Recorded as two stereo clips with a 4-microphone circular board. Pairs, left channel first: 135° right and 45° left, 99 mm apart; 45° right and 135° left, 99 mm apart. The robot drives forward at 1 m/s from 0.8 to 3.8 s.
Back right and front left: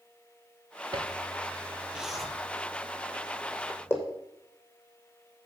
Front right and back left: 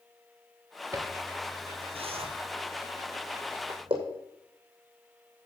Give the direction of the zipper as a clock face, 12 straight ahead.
9 o'clock.